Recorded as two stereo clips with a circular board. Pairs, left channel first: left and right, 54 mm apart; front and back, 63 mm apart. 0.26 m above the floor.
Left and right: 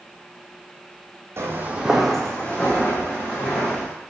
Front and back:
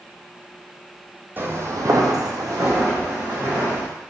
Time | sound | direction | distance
1.4 | footsteps | 125° right | 0.7 m